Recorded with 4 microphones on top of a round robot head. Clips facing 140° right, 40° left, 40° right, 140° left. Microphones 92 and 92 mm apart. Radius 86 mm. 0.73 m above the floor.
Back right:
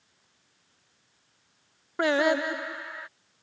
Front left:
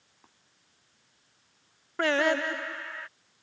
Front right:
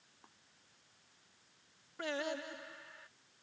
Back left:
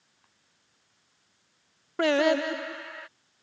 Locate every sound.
0.2 s tapping: 15° left
2.0 s singing: 145° left